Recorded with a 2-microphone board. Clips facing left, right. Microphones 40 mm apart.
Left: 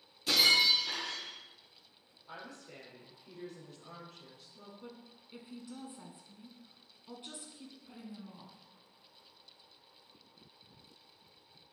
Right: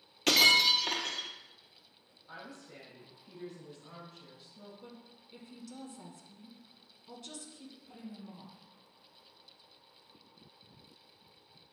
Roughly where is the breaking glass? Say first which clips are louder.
Right 3 dB; right.